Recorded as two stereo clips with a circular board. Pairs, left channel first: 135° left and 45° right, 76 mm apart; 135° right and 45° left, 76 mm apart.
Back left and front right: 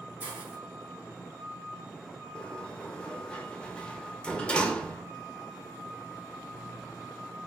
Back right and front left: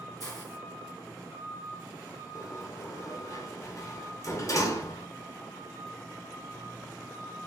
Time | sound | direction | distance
0.2 | a hiss | 110° right | 1.9 m
2.4 | a sliding door | 155° right | 0.5 m